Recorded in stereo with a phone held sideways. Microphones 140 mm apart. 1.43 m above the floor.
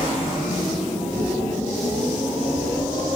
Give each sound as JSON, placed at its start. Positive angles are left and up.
{"t": 0.0, "sound": "a machine running", "side_deg": -15, "distance_m": 5.0}